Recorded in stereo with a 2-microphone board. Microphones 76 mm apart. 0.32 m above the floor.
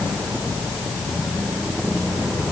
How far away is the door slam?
I don't hear a door slam.